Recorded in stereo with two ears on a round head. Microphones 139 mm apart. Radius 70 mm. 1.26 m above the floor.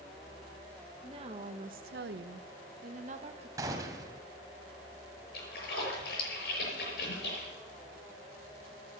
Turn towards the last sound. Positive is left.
turn(degrees=65)  # may be behind; listen again after turning